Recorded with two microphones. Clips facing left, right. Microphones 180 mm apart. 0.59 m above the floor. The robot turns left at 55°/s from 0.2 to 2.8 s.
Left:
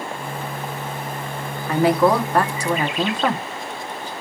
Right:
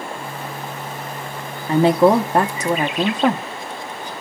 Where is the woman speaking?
25° right (ahead or behind), 0.7 m; by 4.1 s 15° right (ahead or behind), 0.7 m.